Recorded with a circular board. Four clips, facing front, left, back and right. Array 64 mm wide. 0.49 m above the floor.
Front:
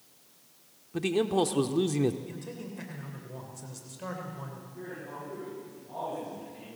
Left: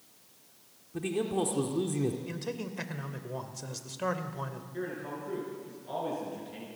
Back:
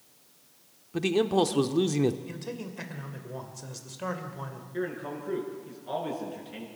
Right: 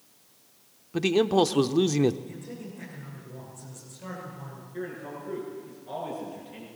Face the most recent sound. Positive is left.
turn(degrees=180)